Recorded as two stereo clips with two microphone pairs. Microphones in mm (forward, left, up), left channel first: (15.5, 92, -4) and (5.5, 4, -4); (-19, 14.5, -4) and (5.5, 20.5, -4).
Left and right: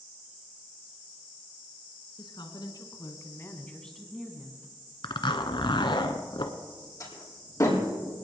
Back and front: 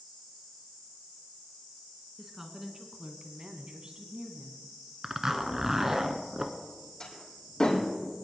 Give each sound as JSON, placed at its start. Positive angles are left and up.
{"t": 2.2, "sound": "a woman speaking", "azimuth_deg": 90, "distance_m": 2.0}
{"t": 5.0, "sound": "a zipper", "azimuth_deg": 85, "distance_m": 1.2}
{"t": 7.0, "sound": "a door slam", "azimuth_deg": 140, "distance_m": 4.5}